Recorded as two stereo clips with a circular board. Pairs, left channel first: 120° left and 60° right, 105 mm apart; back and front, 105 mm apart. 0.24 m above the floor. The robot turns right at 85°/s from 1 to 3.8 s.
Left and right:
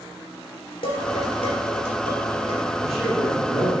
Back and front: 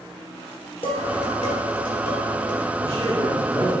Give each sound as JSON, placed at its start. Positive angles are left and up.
{"t": 0.8, "sound": "dishes clattering", "azimuth_deg": 155, "distance_m": 4.0}
{"t": 2.8, "sound": "a man speaking", "azimuth_deg": 15, "distance_m": 3.0}